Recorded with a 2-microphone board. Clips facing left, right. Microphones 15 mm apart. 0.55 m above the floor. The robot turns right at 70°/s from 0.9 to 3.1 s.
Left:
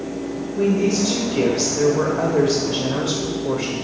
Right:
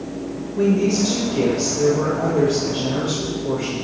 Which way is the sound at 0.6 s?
10° right.